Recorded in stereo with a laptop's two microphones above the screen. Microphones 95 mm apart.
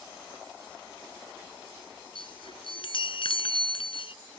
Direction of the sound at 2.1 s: 65° left (ahead or behind).